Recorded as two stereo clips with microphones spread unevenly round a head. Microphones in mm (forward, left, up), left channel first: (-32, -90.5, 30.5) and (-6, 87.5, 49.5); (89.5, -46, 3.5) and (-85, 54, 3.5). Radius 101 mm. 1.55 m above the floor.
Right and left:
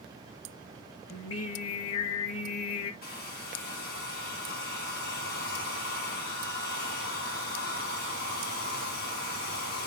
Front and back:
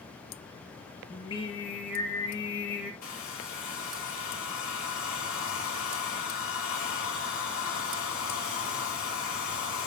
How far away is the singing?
About 1.5 m.